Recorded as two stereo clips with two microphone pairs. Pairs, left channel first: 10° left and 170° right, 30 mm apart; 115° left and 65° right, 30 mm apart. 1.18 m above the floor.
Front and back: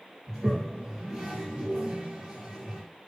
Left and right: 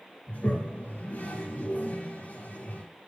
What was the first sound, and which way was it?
A toilet flushing, 120° left.